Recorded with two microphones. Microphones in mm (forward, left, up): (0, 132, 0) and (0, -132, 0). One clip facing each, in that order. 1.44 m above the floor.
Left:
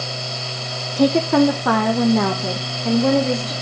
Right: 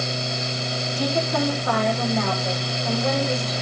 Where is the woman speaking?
65° left (ahead or behind), 0.6 m; by 3.5 s 80° left, 2 m.